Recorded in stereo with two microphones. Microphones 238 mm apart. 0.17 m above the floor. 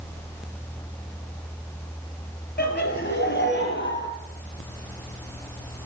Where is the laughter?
45° left (ahead or behind), 3.5 m; by 4.1 s 50° left (ahead or behind), 4.5 m.